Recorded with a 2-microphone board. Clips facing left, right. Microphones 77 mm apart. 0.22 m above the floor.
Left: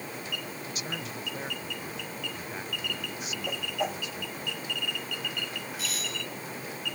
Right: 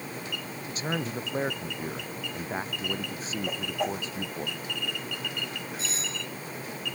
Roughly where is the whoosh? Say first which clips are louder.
Right 1 dB; centre.